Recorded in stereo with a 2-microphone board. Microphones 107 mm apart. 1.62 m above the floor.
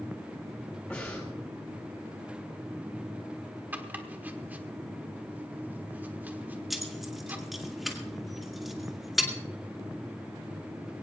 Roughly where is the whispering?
I don't hear whispering.